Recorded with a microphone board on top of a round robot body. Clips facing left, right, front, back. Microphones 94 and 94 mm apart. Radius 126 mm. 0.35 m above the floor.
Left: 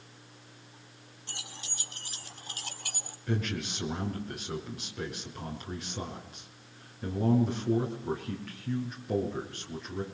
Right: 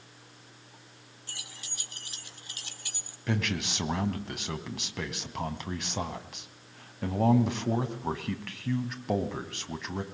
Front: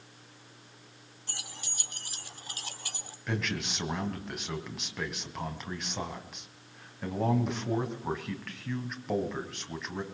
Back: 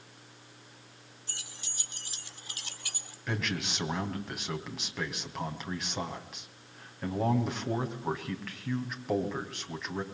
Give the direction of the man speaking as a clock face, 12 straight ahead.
3 o'clock.